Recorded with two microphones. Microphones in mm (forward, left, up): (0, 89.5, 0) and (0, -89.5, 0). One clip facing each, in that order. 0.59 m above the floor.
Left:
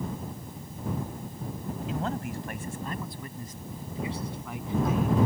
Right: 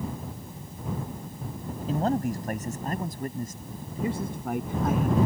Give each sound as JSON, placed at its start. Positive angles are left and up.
{"t": 1.9, "sound": "a man speaking", "side_deg": -40}